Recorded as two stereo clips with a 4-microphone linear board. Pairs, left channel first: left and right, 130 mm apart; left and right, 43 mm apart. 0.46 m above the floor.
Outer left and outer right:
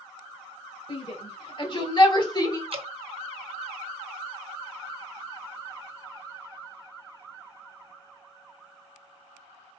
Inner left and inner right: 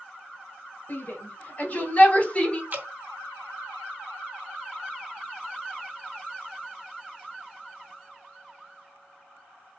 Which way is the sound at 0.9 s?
50° left (ahead or behind).